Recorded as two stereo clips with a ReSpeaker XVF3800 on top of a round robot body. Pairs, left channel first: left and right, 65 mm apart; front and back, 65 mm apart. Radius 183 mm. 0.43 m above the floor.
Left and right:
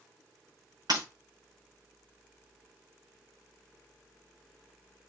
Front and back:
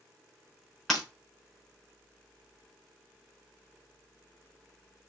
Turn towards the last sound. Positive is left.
turn(degrees=-85)